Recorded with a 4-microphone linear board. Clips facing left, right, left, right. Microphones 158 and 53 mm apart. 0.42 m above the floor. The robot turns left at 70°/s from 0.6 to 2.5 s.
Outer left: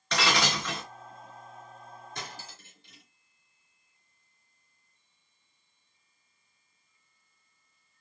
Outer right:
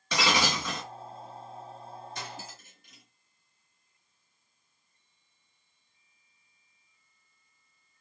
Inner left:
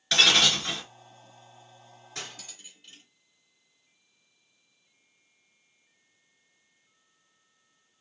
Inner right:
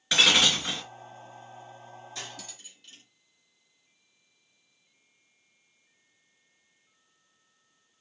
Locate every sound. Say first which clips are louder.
0.1 s breaking glass: even, even; 5° right (ahead or behind), 2 m; by 0.8 s 10° left (ahead or behind), 2 m
2.1 s cutlery clinking: outer right 2 dB, inner left 3 dB; 50° left (ahead or behind), 3 m; by 3.0 s 25° left (ahead or behind), 3 m